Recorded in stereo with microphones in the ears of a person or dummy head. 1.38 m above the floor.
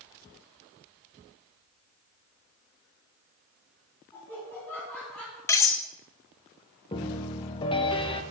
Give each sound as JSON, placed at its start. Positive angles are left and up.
{"t": 4.1, "sound": "laughter", "side_deg": 15, "distance_m": 4.0}
{"t": 5.5, "sound": "cutlery clinking", "side_deg": 15, "distance_m": 0.7}
{"t": 6.9, "sound": "a piano", "side_deg": 25, "distance_m": 0.7}